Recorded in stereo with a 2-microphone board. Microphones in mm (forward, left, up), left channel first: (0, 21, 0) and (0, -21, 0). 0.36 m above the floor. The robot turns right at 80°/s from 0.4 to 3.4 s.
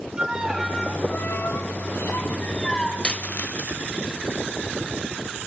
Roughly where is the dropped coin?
Left.